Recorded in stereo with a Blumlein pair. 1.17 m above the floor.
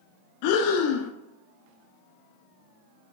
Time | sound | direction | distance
0.4 | breathing | 45° left | 0.9 m